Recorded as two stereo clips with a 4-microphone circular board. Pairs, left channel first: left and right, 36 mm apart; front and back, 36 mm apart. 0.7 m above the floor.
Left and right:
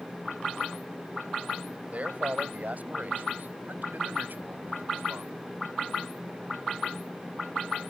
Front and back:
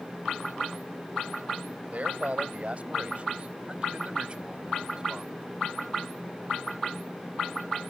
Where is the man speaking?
135° right; by 5.3 s 115° right.